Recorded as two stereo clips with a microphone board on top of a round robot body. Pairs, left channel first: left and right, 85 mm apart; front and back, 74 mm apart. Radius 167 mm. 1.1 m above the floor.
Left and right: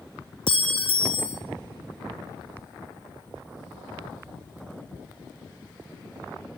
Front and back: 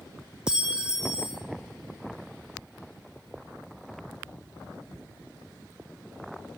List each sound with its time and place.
0.5 s a clink: 100° left, 0.6 m